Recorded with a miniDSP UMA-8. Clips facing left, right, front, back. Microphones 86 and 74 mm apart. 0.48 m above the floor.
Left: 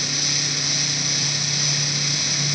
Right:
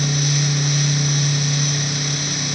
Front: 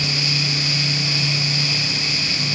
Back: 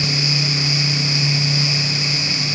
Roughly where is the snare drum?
No snare drum in this recording.